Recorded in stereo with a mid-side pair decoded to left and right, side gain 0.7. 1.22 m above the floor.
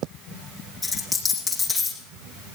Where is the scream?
No scream in this recording.